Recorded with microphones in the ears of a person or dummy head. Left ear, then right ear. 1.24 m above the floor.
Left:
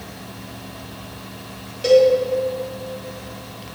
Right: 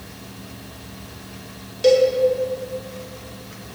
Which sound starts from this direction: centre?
A cowbell, at 1.8 s.